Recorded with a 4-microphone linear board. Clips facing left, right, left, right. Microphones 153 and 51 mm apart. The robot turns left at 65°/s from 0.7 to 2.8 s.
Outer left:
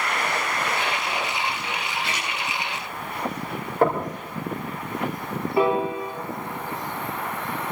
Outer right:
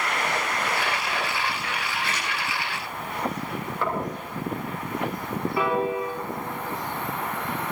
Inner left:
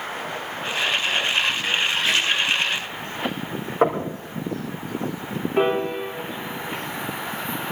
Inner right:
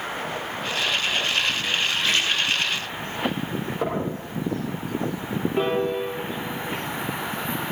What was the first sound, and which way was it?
A splash, 20° left (ahead or behind).